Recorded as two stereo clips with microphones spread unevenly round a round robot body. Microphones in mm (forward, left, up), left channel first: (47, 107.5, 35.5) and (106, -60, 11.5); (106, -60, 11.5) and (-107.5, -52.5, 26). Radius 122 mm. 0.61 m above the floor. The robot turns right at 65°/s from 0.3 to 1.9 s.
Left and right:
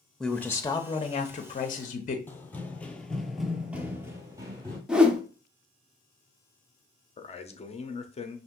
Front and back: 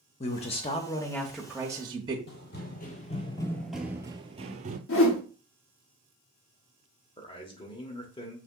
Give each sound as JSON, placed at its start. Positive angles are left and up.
{"t": 0.2, "sound": "a man speaking", "azimuth_deg": 15, "distance_m": 0.6}
{"t": 2.3, "sound": "running footsteps", "azimuth_deg": 40, "distance_m": 0.9}
{"t": 4.9, "sound": "a whoosh", "azimuth_deg": 10, "distance_m": 0.9}
{"t": 7.2, "sound": "a man speaking", "azimuth_deg": 55, "distance_m": 0.8}